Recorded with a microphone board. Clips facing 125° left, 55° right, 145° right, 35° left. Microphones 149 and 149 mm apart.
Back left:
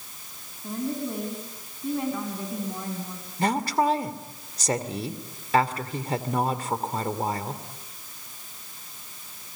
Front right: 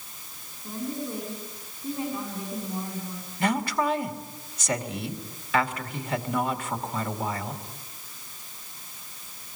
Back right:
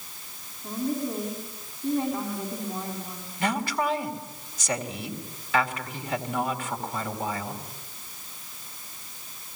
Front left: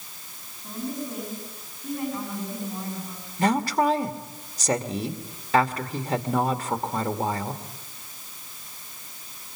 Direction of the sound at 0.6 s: 155° left.